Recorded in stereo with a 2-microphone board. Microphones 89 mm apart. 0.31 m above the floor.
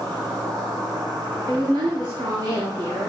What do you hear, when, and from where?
0.0 s an insect: 40° right (ahead or behind), 7 m
1.5 s a woman speaking: 50° right (ahead or behind), 3.5 m